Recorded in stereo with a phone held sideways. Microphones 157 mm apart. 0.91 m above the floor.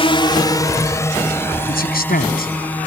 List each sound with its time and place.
0.0 s a drone: 35° left (ahead or behind); by 2.9 s 10° left (ahead or behind)
1.7 s a man speaking: 70° left (ahead or behind)